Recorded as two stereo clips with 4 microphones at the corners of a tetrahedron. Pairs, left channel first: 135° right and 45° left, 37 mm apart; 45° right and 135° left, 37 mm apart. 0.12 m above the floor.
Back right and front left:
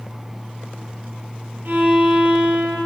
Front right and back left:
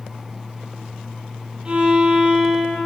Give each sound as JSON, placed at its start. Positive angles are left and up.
{"t": 1.6, "sound": "a violin", "azimuth_deg": 70, "distance_m": 1.7}